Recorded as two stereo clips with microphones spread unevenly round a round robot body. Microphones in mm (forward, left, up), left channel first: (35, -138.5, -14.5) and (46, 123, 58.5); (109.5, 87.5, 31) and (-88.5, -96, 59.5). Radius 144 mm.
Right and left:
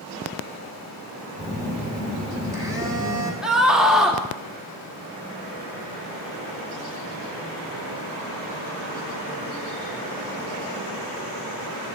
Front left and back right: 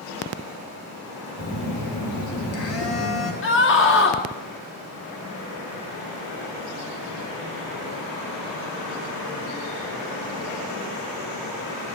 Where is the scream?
5° right, 2.5 m.